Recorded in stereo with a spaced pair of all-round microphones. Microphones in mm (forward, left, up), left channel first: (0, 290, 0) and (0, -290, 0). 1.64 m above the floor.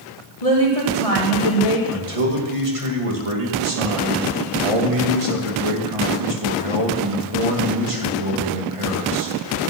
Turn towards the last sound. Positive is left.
turn(degrees=-65)  # may be behind; listen again after turning